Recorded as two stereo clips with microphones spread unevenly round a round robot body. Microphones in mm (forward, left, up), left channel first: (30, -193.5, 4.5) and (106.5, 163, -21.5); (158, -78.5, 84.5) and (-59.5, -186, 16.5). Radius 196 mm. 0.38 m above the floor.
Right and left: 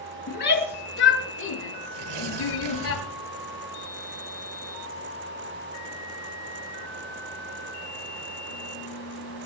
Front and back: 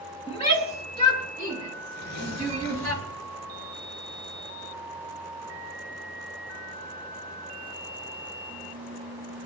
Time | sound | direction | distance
0.3 | a shout | 40° right | 6 m
1.9 | tearing paper | 70° left | 6 m